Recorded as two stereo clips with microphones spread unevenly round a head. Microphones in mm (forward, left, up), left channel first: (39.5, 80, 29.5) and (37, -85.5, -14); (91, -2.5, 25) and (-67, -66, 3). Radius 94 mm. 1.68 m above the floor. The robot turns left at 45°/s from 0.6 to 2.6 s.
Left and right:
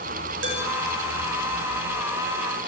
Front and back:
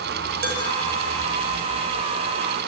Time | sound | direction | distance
0.4 | dishes clattering | 125° right | 5.5 m